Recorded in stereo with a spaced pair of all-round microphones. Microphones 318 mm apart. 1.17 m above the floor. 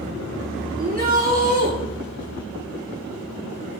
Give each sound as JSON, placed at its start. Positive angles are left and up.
{"t": 0.8, "sound": "a shout", "side_deg": -30, "distance_m": 3.5}